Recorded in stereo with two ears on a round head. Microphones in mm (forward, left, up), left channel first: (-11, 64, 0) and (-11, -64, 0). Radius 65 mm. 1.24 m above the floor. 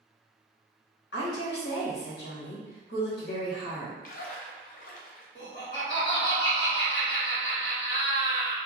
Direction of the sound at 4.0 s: 55° left (ahead or behind).